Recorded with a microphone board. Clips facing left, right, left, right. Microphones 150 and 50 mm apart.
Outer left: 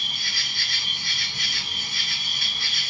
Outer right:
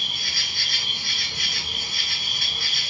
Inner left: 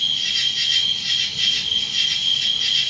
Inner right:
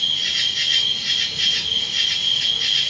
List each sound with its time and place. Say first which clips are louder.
0.0 s an insect: outer right 1 dB, even; 55° right (ahead or behind), 1.2 m